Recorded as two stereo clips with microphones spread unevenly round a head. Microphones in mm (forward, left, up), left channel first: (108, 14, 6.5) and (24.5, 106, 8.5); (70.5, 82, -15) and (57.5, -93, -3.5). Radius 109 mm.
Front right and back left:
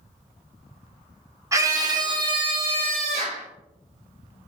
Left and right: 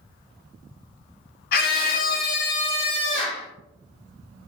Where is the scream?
65° left, 1.1 m; by 3.5 s 175° left, 0.8 m.